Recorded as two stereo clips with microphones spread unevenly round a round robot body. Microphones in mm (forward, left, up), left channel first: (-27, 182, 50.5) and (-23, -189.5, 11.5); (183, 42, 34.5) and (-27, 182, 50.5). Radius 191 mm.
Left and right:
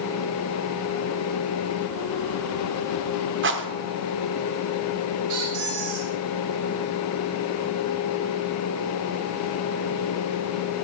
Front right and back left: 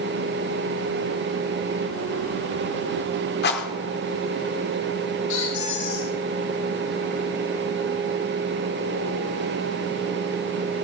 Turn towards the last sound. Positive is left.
turn(degrees=-45)